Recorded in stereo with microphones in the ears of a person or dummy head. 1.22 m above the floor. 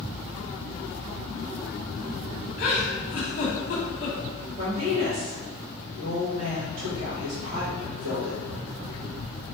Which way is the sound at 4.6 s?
55° right (ahead or behind).